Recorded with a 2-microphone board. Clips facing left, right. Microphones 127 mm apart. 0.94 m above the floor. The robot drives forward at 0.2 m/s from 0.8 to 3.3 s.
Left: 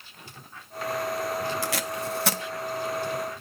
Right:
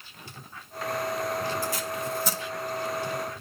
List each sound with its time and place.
1.6 s tape being pulled: 75° left (ahead or behind), 0.5 m; by 2.4 s 70° left (ahead or behind), 0.5 m